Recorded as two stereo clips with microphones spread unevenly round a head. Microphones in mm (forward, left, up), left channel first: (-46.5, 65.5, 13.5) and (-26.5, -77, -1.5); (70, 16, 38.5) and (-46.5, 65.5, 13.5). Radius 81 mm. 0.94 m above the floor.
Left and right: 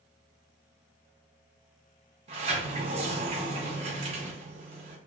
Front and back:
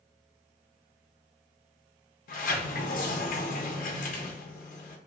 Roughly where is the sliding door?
Ahead right.